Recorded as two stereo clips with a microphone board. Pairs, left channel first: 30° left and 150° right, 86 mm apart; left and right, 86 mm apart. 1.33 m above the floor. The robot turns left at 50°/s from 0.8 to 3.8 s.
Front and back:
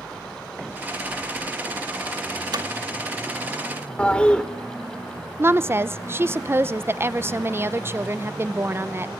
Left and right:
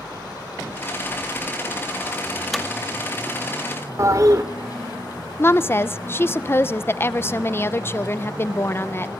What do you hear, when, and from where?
2.5 s hammering: straight behind, 2 m; by 2.7 s 175° left, 2 m
4.0 s a toilet flushing: 45° right, 1.8 m
5.4 s a woman speaking: 150° left, 0.8 m